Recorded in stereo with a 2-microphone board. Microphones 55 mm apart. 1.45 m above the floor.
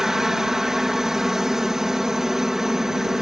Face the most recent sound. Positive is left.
turn(degrees=-5)  # may be behind; listen again after turning